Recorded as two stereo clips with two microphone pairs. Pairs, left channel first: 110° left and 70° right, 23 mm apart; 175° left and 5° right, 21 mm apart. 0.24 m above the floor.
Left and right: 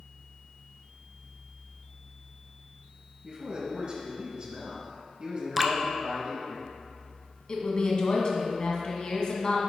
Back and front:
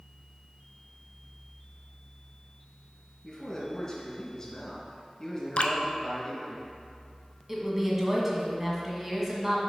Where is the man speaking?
115° right, 1.9 m.